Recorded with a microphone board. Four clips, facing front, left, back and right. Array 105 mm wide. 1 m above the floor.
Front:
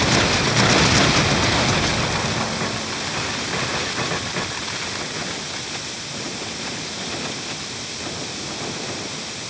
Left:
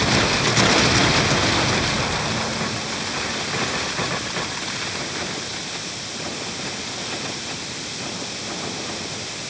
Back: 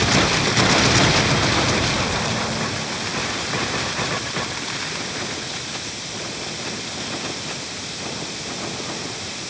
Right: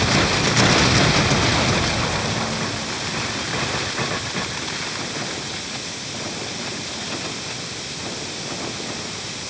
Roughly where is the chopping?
I don't hear chopping.